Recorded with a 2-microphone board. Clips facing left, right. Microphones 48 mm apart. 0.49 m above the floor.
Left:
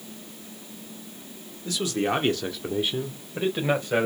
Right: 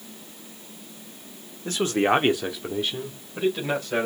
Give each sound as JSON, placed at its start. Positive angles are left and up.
{"t": 1.6, "sound": "a man speaking", "side_deg": -40, "distance_m": 1.6}